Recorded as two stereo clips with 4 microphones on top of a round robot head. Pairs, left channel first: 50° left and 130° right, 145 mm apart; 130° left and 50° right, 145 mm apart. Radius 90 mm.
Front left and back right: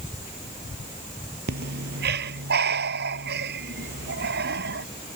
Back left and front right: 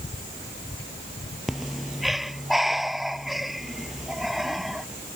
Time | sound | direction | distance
1.5 | breathing | 140° right | ?